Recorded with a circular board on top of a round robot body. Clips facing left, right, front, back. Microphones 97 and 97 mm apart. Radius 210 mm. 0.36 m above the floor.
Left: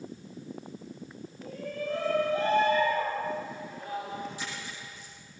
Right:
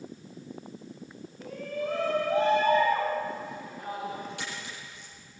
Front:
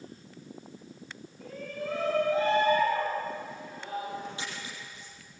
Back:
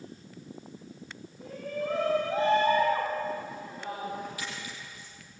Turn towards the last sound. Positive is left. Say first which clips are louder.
# even, even
turn(degrees=-65)